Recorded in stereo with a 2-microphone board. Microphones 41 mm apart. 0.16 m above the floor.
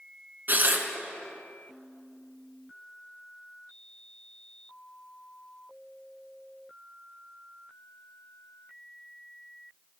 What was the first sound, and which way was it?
Tearing paper, 45° right (ahead or behind).